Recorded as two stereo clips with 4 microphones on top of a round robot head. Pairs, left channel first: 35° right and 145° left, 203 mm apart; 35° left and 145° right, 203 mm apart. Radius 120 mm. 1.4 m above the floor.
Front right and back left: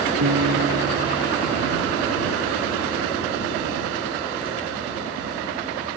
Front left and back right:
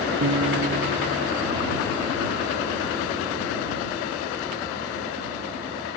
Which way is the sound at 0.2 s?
175° left.